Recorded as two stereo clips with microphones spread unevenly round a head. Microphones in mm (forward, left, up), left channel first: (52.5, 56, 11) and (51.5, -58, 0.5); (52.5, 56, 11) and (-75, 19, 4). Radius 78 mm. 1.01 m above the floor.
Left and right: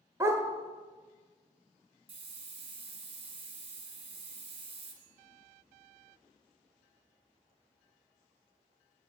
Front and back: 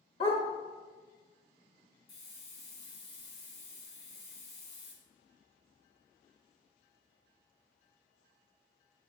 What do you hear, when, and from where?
0.2 s a dog barking: 25° right, 1.0 m
2.1 s a hiss: 50° right, 1.4 m